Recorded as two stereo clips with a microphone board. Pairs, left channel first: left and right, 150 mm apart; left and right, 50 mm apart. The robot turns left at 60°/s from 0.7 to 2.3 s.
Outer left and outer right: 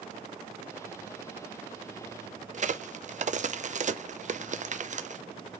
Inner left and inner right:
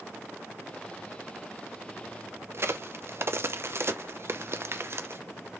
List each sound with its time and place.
2.5 s a crack: 50° right (ahead or behind), 0.5 m